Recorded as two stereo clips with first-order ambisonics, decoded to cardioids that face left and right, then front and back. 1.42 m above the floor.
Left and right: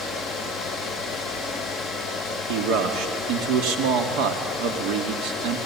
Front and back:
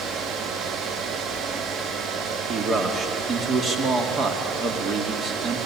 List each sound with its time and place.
2.5 s a man speaking: 115° right, 2.5 m